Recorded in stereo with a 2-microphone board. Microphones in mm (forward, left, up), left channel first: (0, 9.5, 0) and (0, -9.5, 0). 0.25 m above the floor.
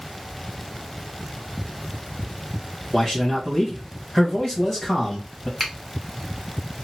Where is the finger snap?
Centre (ahead or behind), 1.4 m.